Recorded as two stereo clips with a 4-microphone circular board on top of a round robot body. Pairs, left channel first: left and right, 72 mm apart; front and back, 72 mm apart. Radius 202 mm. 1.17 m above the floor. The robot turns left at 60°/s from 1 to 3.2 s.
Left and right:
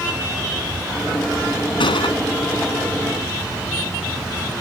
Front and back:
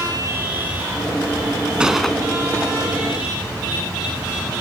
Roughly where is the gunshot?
Left.